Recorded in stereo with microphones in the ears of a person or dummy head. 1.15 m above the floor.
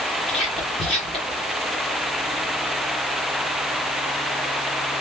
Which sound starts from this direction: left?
Whispering, at 0.3 s.